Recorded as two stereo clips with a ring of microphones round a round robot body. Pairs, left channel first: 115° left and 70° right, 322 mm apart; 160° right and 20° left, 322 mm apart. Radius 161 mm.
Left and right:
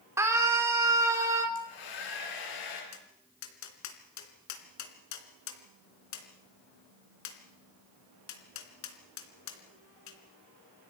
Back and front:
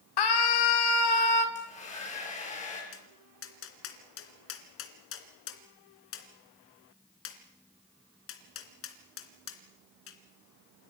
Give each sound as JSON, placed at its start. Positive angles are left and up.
{"t": 0.2, "sound": "a scream", "azimuth_deg": -150, "distance_m": 3.5}
{"t": 1.6, "sound": "a hair dryer", "azimuth_deg": 135, "distance_m": 7.0}
{"t": 2.9, "sound": "tapping", "azimuth_deg": 150, "distance_m": 3.0}